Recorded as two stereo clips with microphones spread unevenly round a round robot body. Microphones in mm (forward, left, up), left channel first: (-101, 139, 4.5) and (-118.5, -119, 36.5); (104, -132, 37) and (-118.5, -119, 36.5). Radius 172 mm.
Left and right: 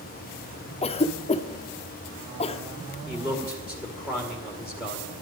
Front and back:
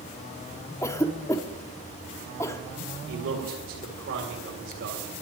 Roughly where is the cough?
Ahead left.